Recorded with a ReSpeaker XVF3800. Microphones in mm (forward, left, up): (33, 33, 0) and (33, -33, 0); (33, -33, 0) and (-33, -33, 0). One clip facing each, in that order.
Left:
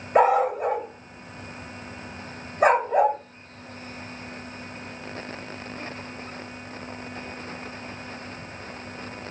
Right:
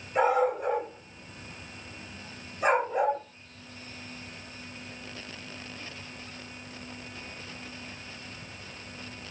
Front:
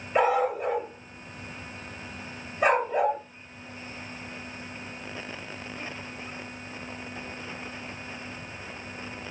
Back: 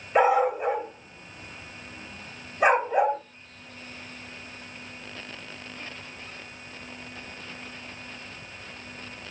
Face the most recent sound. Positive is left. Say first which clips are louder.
# left 5 dB, back 3 dB
turn(degrees=105)